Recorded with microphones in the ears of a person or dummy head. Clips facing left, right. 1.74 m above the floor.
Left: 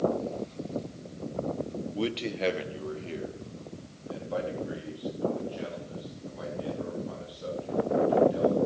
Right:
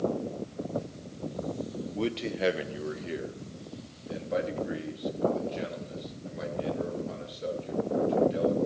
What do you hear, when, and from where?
1.9 s a man speaking: 5° left (ahead or behind), 1.0 m; by 8.6 s 30° right (ahead or behind), 7.5 m